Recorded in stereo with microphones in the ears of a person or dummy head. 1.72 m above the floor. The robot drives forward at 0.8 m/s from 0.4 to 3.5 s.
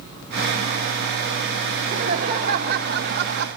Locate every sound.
1.8 s laughter: 40° right (ahead or behind), 3 m; by 3.5 s 65° right (ahead or behind), 2.0 m